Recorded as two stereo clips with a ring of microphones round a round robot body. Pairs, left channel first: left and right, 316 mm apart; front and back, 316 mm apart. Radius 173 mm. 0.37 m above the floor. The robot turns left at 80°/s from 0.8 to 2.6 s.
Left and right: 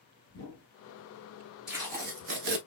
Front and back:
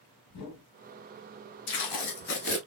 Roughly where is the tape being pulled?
Ahead.